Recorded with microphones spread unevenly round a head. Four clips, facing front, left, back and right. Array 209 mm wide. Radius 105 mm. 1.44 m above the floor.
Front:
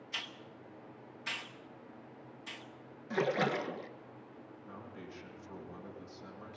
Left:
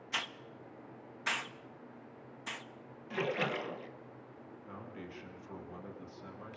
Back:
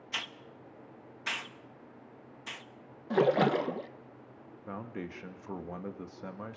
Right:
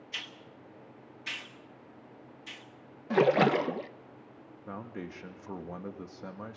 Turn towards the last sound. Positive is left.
turn(degrees=-140)